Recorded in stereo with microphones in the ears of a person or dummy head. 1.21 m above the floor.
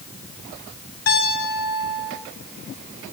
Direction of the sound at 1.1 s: 80° left.